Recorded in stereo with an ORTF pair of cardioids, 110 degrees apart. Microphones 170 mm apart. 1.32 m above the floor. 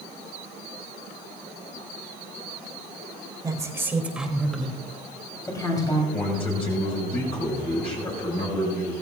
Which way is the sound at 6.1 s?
35° left.